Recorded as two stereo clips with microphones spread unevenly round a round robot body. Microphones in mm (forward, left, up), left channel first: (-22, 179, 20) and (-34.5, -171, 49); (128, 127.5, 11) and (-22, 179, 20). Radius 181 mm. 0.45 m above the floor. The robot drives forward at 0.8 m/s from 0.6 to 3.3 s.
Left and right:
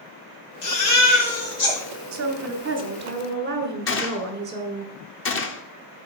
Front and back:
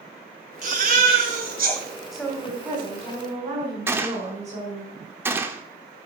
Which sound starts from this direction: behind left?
A baby crying, at 0.6 s.